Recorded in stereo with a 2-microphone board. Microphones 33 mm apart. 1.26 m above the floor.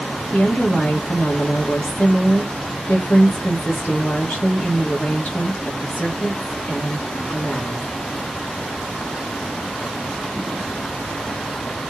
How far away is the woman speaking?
About 2 m.